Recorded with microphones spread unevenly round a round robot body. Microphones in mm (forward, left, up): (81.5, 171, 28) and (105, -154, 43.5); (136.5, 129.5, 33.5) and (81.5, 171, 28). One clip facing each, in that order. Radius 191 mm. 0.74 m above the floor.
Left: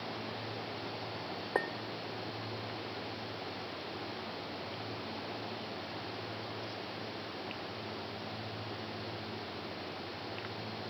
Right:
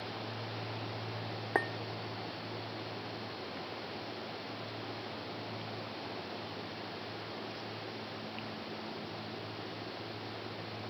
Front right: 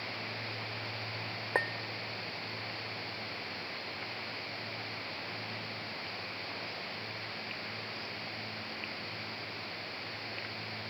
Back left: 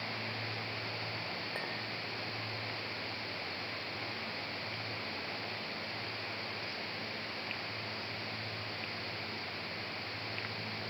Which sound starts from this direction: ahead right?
A clink, at 1.6 s.